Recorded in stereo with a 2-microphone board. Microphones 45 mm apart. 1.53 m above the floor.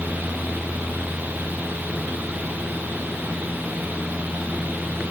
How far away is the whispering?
No whispering in this recording.